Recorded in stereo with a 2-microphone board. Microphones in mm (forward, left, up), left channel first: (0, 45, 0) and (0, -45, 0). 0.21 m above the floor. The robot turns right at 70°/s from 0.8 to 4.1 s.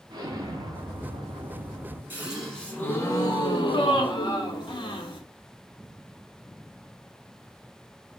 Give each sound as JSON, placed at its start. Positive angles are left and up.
{"t": 0.1, "sound": "an explosion", "azimuth_deg": -105, "distance_m": 0.7}
{"t": 2.1, "sound": "a gasp", "azimuth_deg": -25, "distance_m": 0.7}